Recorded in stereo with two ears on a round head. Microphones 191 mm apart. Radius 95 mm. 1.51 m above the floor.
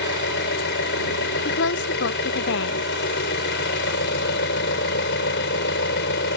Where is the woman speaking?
55° left (ahead or behind).